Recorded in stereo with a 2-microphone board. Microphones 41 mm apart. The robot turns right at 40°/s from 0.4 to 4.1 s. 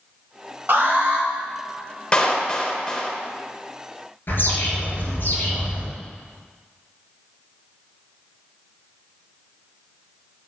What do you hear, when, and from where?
0.7 s an alarm: 55° right (ahead or behind), 1.2 m; by 1.3 s 45° right (ahead or behind), 1.2 m
2.1 s a clap: 25° left (ahead or behind), 0.8 m; by 3.2 s 15° left (ahead or behind), 0.8 m
4.3 s a bird: 60° left (ahead or behind), 2.5 m